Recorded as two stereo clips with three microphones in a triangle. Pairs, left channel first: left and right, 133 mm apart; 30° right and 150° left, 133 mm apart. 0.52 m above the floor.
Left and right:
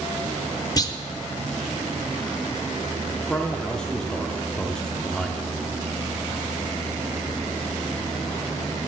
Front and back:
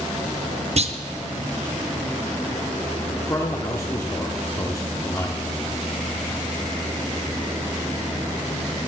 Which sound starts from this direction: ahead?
A man speaking, at 3.2 s.